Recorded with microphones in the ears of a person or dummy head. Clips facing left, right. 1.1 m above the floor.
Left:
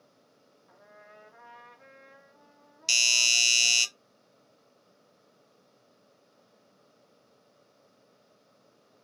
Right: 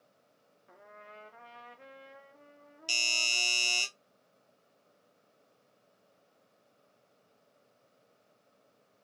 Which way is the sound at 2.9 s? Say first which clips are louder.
Left 1 dB; 25° left (ahead or behind).